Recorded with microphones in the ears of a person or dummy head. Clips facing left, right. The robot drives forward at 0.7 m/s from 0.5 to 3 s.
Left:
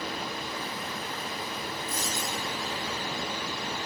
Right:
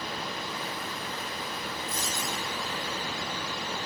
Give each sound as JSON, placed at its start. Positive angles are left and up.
{"t": 1.9, "sound": "a dropped coin", "side_deg": 75, "distance_m": 8.5}